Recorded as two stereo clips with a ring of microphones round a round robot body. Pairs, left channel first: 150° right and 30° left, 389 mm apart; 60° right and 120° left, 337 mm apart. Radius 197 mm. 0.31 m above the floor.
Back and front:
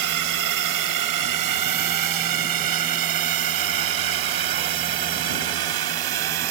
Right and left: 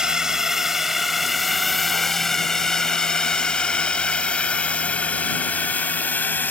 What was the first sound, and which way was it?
A drone, 35° left.